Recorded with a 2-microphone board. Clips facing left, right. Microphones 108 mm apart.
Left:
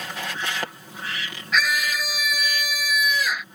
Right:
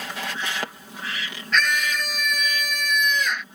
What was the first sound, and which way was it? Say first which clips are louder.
A scream: even; 5° left (ahead or behind).